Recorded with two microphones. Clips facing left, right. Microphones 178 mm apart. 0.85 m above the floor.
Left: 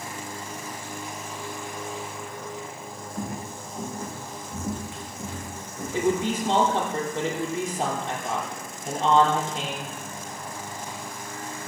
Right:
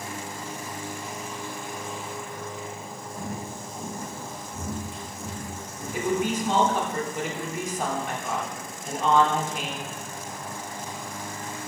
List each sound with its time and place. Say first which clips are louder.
3.1 s footsteps: left 2 dB; 80° left, 4 m; by 6.8 s 60° left (ahead or behind), 3.5 m
5.9 s a woman speaking: left 2 dB; 30° left (ahead or behind), 2.5 m